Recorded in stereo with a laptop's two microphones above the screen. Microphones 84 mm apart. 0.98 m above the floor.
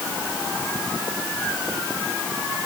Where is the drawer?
No drawer in this recording.